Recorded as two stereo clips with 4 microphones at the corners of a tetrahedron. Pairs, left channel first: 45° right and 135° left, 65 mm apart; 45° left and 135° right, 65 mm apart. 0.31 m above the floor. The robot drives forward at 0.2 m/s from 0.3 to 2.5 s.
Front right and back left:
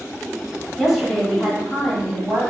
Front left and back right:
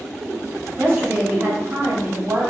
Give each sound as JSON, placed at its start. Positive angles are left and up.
{"t": 0.8, "sound": "a woman speaking", "azimuth_deg": -130, "distance_m": 1.1}